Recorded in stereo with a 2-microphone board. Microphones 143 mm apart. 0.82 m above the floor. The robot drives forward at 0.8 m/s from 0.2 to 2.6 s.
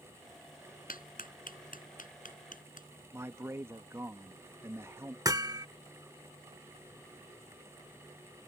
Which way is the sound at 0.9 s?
80° left.